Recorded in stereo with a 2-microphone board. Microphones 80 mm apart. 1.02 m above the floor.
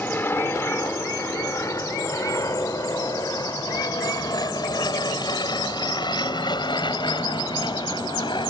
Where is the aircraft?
25° left (ahead or behind); by 8.5 s 70° left (ahead or behind).